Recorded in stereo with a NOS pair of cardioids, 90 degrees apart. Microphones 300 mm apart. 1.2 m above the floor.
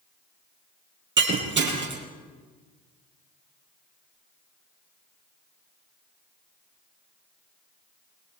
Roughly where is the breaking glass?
Ahead right.